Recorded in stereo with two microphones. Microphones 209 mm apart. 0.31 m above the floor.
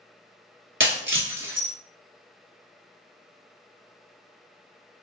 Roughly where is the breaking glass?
Right.